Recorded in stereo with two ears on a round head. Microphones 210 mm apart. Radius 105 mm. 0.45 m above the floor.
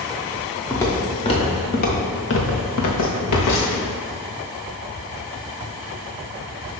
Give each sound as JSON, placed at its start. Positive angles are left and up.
{"t": 0.7, "sound": "footsteps", "side_deg": 10, "distance_m": 3.0}